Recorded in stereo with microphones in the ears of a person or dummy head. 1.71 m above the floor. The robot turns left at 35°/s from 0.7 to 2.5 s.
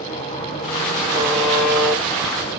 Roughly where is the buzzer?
Behind.